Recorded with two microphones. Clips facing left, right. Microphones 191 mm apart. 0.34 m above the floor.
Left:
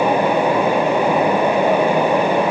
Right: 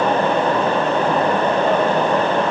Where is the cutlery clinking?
I don't hear cutlery clinking.